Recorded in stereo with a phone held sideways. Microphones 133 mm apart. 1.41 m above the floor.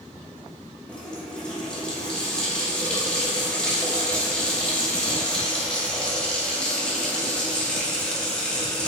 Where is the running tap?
5° left (ahead or behind), 2 m.